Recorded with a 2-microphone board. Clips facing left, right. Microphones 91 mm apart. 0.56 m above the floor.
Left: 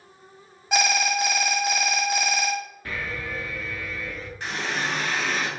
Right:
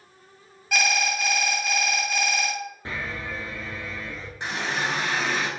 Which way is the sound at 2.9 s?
25° right (ahead or behind).